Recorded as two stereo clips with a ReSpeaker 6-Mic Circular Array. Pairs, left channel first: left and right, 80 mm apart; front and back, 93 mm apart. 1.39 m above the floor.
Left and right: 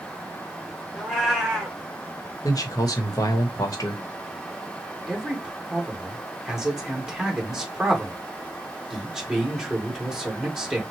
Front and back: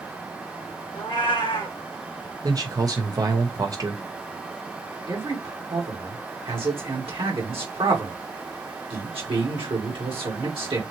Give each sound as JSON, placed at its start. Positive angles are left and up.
{"t": 0.9, "sound": "a cat meowing", "azimuth_deg": 0, "distance_m": 2.0}
{"t": 2.4, "sound": "a man speaking", "azimuth_deg": 130, "distance_m": 1.0}
{"t": 5.1, "sound": "a man speaking", "azimuth_deg": -175, "distance_m": 2.0}